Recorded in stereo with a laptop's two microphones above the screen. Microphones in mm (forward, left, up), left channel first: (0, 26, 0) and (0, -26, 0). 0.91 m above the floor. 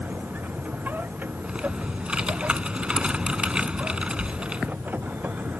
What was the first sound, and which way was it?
A machine running, 35° right (ahead or behind).